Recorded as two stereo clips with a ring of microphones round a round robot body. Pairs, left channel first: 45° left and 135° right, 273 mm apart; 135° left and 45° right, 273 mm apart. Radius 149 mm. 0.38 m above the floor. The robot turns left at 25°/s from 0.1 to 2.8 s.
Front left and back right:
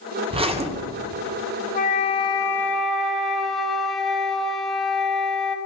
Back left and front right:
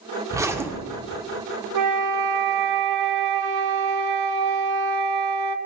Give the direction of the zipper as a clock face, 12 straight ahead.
3 o'clock.